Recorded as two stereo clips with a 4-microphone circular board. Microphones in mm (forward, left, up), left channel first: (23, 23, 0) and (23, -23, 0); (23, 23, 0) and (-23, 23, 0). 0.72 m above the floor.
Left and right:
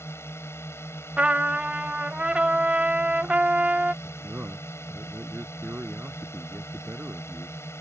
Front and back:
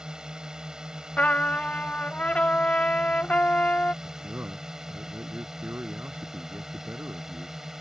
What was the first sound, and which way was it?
A drone, 105° left.